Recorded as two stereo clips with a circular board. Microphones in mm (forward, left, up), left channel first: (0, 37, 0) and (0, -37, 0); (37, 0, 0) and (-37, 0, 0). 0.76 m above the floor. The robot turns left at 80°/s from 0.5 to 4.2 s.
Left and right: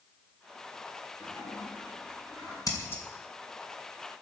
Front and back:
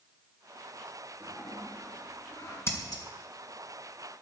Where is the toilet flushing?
135° left, 7 m; by 2.6 s 30° left, 7 m.